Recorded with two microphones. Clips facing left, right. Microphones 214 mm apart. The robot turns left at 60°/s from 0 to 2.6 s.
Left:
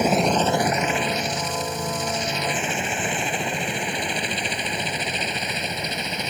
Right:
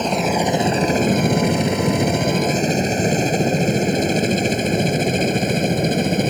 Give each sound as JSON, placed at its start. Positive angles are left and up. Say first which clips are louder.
{"t": 0.0, "sound": "a helicopter", "louder": "right 1 dB", "side_deg": 10}